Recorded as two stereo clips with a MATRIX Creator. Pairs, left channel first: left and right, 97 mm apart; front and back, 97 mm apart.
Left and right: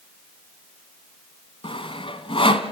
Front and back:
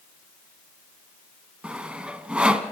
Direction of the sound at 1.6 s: 100° left.